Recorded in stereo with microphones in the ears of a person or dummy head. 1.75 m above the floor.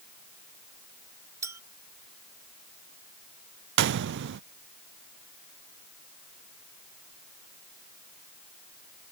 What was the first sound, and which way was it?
A clink, 20° right (ahead or behind).